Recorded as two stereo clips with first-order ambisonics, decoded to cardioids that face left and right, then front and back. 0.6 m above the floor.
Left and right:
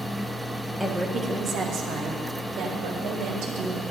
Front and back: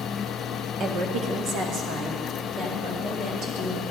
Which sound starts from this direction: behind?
A woman speaking, at 0.8 s.